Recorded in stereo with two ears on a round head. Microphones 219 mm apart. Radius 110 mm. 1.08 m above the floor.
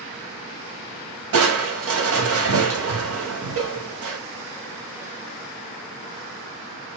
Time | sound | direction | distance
1.3 | crushing | 60° right (ahead or behind) | 1.6 m